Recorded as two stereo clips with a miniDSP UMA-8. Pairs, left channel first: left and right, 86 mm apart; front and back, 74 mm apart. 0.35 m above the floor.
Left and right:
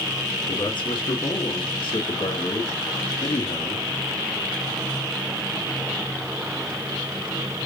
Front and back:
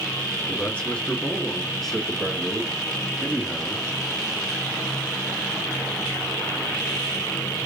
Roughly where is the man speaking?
Ahead left.